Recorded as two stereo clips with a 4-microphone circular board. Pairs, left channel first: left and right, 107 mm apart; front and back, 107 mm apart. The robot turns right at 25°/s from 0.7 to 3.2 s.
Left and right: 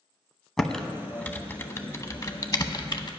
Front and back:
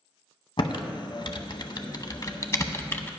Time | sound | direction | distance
0.6 | typing on a keyboard | 5° left | 0.6 m